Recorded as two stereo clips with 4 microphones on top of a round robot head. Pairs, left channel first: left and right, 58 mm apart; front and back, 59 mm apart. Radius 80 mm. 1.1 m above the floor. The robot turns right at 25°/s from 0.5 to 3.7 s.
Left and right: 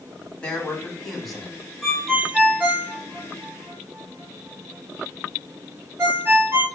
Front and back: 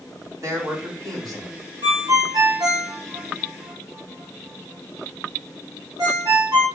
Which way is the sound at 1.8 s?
Straight behind.